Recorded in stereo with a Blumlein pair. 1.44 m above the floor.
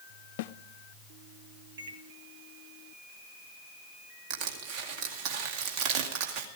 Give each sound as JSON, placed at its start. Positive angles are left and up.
{"t": 0.4, "sound": "a snare drum", "azimuth_deg": 50, "distance_m": 0.5}
{"t": 1.8, "sound": "a microwave", "azimuth_deg": -65, "distance_m": 1.8}
{"t": 4.3, "sound": "crushing", "azimuth_deg": -40, "distance_m": 2.0}